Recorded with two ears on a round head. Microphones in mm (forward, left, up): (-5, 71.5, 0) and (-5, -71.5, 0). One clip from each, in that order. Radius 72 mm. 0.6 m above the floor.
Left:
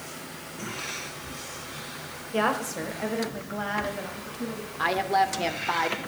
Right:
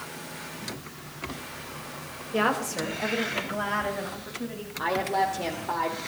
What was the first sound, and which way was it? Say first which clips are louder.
A woman speaking: even; 5° left (ahead or behind).